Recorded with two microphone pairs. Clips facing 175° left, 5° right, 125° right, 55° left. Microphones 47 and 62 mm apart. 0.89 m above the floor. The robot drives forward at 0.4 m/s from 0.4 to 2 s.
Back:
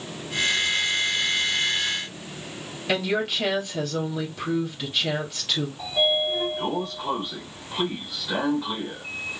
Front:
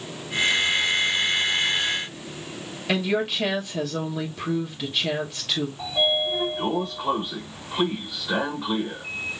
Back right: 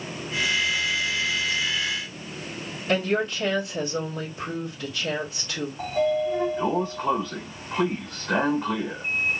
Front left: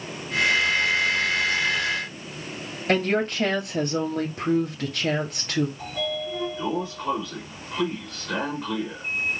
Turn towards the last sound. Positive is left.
turn(degrees=-90)